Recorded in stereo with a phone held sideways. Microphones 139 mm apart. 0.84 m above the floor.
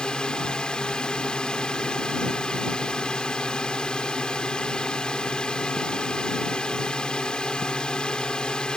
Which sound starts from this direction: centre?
A drone, at 0.0 s.